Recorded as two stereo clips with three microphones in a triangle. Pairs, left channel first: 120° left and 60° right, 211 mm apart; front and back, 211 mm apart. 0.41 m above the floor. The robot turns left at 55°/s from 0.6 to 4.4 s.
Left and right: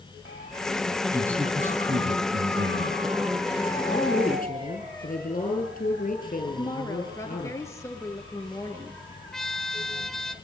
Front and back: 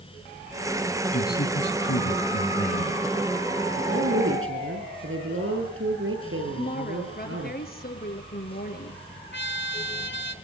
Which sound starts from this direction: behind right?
A woman speaking, at 3.8 s.